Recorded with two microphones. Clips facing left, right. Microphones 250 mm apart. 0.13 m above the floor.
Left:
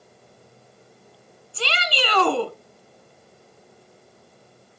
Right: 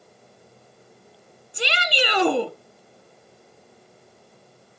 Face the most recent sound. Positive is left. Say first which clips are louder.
# right 2 dB
turn(degrees=-15)  # may be behind; listen again after turning